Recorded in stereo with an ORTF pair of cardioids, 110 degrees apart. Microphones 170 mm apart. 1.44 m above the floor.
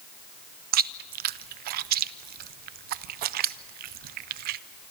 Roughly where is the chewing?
Ahead right.